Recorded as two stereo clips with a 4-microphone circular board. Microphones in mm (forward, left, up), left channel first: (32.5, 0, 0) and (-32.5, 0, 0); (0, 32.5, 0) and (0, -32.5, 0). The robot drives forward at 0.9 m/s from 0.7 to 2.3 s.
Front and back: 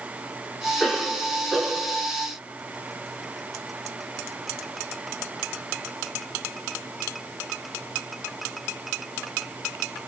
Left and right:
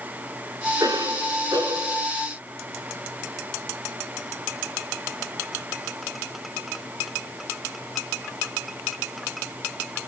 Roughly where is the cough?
Right.